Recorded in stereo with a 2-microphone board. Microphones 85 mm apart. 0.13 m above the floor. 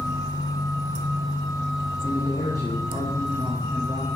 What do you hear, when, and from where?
2.0 s a man speaking: 40° left (ahead or behind), 6 m